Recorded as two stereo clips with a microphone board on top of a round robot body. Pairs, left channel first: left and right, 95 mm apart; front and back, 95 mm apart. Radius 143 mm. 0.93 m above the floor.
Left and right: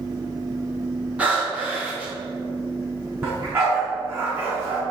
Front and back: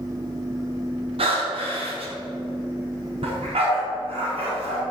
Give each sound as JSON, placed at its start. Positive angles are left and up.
{"t": 1.2, "sound": "breathing", "azimuth_deg": -165, "distance_m": 3.0}
{"t": 3.2, "sound": "a dog barking", "azimuth_deg": -155, "distance_m": 4.5}